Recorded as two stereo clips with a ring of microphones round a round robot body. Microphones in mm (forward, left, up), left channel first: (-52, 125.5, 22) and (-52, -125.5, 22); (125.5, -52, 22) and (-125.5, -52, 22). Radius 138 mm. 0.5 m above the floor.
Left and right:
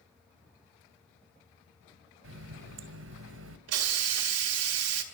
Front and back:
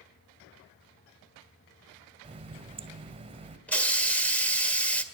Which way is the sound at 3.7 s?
85° right.